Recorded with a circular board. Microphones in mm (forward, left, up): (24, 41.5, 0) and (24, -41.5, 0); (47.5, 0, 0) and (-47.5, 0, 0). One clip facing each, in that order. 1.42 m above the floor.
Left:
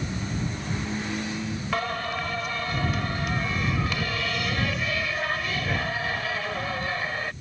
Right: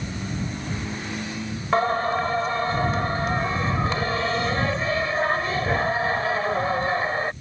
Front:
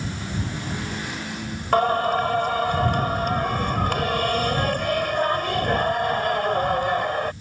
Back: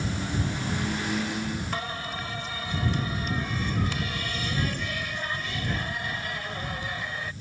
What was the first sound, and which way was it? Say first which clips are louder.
Singing: right 9 dB, front 14 dB; 35° right.